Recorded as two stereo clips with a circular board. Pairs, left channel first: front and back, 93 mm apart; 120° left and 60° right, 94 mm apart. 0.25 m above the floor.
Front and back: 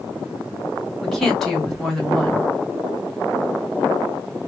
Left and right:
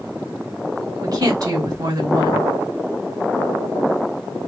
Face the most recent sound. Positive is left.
turn(degrees=-90)